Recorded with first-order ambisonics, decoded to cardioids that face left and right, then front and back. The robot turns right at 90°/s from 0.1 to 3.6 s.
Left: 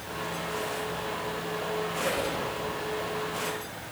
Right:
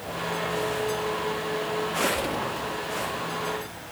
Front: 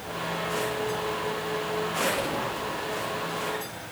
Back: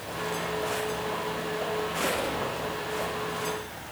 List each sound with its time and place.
1.9 s a squeak: 120° right, 2 m; by 2.5 s 70° right, 2 m